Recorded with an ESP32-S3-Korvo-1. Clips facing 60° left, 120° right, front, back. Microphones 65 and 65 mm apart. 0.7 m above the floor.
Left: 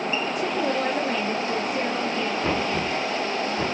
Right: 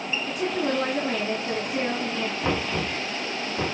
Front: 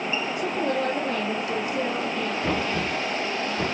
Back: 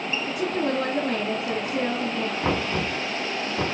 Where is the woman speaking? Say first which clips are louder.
Right 3 dB, back 3 dB; straight behind, 5.5 m.